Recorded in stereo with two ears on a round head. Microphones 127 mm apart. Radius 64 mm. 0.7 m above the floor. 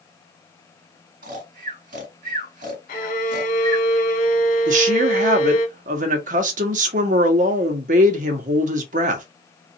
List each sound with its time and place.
1.2 s snoring: 60° right (ahead or behind), 1.7 m
2.9 s a violin: 65° left (ahead or behind), 1.1 m
4.7 s a woman speaking: 55° right (ahead or behind), 1.0 m